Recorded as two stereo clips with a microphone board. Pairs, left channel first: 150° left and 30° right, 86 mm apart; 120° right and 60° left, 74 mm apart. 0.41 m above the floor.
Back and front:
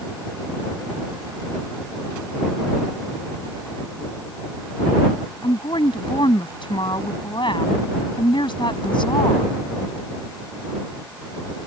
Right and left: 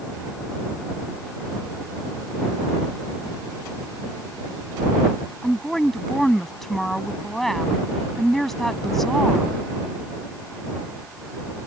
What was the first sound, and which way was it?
A woman speaking, 155° left.